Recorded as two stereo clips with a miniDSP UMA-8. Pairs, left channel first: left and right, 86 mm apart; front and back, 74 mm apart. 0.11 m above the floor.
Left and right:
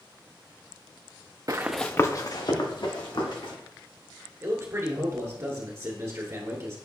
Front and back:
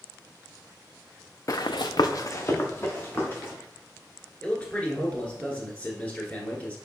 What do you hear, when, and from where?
1.5 s running footsteps: 45° right, 0.5 m; by 3.5 s 65° left, 2.5 m
4.4 s a man speaking: 60° right, 1.4 m